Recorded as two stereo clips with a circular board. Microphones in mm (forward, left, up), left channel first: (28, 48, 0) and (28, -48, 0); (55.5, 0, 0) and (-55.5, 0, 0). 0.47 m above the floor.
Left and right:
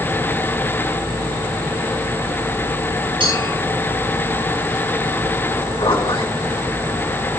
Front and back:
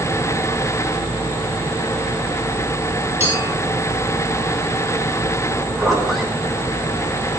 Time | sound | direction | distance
3.2 | a clink | 110° right | 6 m
5.8 | a zipper | 95° left | 3.5 m